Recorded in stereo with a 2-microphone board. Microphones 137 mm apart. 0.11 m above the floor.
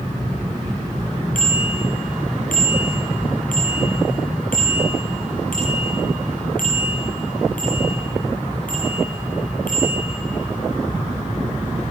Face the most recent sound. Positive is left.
turn(degrees=80)